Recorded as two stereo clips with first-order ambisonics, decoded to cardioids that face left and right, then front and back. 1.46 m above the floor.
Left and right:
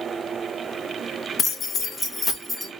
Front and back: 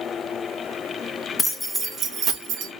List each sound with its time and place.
1.4 s keys jangling: 60° left, 0.7 m; by 2.7 s 175° left, 0.9 m